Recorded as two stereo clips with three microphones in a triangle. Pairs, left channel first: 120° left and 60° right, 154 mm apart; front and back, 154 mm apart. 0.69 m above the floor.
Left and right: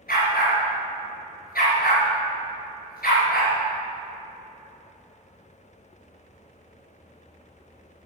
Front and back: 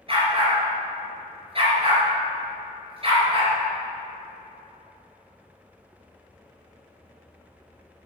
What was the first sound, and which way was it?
A dog barking, 130° left.